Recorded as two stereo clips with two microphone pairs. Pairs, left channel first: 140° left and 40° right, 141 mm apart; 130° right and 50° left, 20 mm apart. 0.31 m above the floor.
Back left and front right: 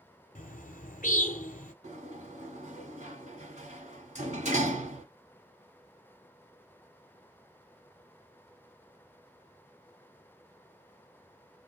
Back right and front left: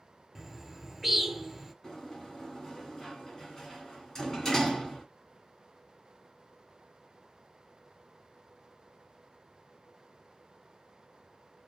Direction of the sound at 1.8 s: 70° right.